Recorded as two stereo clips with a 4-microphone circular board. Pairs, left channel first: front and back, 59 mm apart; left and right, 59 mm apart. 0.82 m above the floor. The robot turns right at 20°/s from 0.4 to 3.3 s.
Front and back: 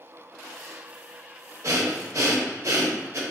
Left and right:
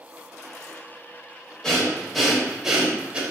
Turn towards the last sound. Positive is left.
turn(degrees=-155)